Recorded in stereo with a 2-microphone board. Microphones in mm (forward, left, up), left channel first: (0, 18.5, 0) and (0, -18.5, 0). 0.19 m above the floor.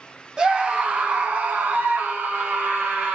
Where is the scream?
25° right (ahead or behind), 1.2 m; by 3.1 s 65° right (ahead or behind), 2.5 m.